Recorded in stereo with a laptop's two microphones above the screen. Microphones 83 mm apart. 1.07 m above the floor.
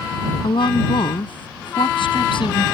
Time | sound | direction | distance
0.4 | a woman speaking | 85° left | ?